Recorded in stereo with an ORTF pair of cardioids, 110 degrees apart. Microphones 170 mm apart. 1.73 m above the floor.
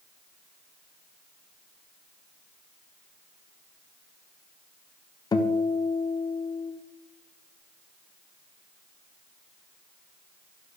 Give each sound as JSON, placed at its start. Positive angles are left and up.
{"t": 5.3, "sound": "a guitar", "azimuth_deg": 25, "distance_m": 0.8}